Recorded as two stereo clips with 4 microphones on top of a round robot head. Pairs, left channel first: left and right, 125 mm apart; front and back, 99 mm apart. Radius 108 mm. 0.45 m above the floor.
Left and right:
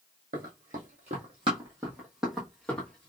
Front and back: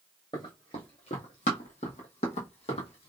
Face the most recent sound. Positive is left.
turn(degrees=15)